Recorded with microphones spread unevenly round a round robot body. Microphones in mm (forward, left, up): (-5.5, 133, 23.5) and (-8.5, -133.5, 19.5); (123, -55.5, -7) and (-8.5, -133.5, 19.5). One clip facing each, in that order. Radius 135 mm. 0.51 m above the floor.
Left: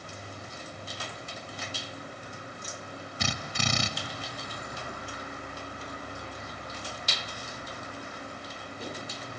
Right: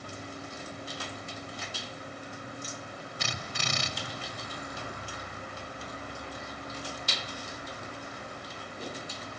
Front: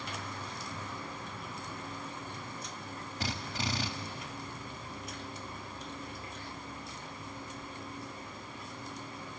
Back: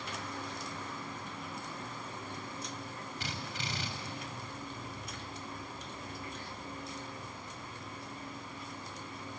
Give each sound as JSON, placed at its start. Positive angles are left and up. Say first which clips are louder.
{"t": 3.2, "sound": "a drill", "louder": "left 7 dB, front 7 dB", "azimuth_deg": 95, "distance_m": 1.4}